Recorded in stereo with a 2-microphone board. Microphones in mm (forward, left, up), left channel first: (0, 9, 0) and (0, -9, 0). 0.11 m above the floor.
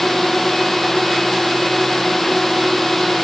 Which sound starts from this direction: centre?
A drone, at 0.0 s.